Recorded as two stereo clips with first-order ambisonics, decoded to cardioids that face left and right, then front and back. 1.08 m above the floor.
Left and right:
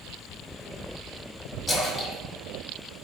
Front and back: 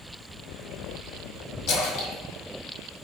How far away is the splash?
About 1.1 m.